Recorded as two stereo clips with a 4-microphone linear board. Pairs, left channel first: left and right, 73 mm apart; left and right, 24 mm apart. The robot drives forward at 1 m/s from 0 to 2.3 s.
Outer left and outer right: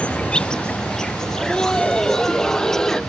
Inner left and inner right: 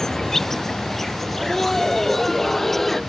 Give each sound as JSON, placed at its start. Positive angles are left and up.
{"t": 0.0, "sound": "an insect", "side_deg": 15}
{"t": 1.2, "sound": "laughter", "side_deg": 10}